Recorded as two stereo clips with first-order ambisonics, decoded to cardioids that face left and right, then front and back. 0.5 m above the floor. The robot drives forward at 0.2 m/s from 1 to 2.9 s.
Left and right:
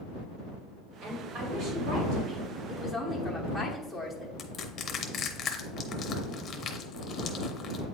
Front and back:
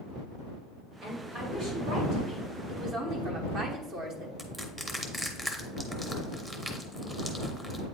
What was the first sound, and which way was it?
A woman speaking, 115° right.